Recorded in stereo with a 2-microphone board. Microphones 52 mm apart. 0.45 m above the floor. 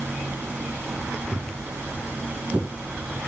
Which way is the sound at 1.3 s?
70° right (ahead or behind).